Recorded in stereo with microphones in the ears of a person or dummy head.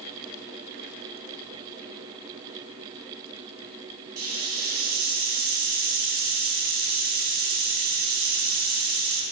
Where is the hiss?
50° right (ahead or behind), 1.2 m.